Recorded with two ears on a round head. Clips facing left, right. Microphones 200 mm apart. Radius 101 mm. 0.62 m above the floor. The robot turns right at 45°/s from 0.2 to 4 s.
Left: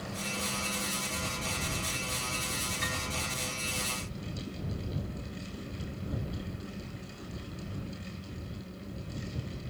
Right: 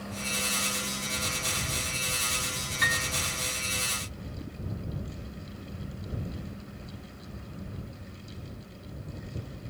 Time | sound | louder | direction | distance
2.8 | a piano | right 1 dB | 70° right (ahead or behind) | ?